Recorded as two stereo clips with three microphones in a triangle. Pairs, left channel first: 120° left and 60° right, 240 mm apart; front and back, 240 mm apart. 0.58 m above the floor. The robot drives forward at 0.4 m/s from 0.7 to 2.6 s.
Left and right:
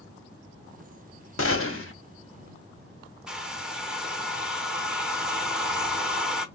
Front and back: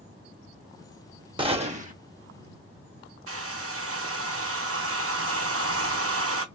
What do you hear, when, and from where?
1.4 s a gunshot: 115° left, 0.7 m; by 1.9 s 130° left, 0.8 m
3.3 s a hair dryer: 145° right, 0.6 m